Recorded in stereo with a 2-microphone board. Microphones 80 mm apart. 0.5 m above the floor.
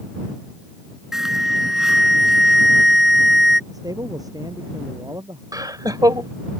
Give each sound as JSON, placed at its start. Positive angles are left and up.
{"t": 1.1, "sound": "an alarm", "side_deg": -5}
{"t": 3.7, "sound": "a man speaking", "side_deg": -45}
{"t": 5.5, "sound": "laughter", "side_deg": -50}